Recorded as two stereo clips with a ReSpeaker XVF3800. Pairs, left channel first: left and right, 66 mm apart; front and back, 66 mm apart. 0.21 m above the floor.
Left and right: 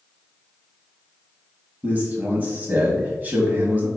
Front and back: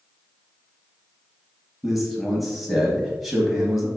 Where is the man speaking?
95° right, 1.0 m.